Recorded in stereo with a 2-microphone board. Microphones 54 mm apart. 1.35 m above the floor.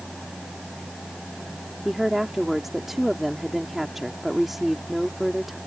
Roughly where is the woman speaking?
Centre.